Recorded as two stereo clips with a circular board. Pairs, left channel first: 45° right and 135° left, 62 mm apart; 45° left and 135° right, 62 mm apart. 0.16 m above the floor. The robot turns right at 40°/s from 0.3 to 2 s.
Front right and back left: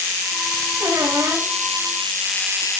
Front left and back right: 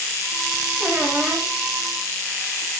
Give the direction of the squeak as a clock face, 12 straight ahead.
7 o'clock.